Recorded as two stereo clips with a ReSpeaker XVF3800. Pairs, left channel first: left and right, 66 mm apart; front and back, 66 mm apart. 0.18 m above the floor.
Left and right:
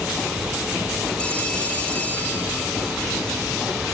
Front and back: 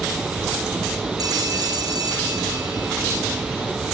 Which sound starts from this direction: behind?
A phone ringing, at 1.2 s.